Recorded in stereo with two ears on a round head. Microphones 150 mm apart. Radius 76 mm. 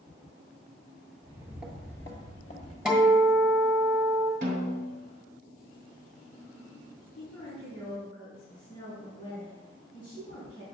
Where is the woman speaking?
30° left (ahead or behind), 3 m.